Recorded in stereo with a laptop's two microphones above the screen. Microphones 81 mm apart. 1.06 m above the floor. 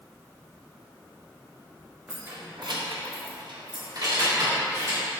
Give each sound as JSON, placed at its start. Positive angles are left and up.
{"t": 2.1, "sound": "keys jangling", "side_deg": -20, "distance_m": 1.1}